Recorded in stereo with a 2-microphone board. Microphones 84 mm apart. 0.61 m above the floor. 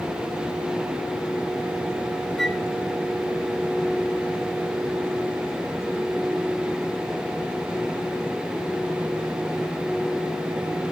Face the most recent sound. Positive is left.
turn(degrees=0)  # may be behind; listen again after turning